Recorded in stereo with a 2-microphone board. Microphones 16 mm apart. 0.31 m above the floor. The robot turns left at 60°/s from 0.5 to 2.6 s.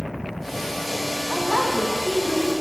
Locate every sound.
1.3 s a woman speaking: 105° right, 1.8 m; by 2.5 s 175° right, 1.8 m